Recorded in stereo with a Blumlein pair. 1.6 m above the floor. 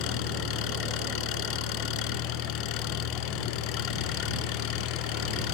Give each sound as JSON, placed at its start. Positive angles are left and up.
{"t": 0.0, "sound": "an engine running", "azimuth_deg": 40}